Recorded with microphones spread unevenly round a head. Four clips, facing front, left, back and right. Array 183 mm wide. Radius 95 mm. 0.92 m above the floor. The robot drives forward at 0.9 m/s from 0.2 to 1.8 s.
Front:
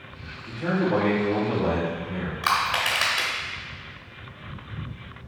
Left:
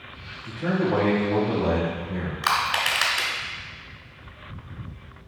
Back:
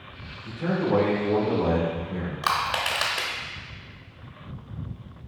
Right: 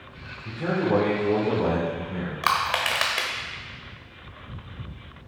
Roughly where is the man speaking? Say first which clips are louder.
Even, front 1 dB; right.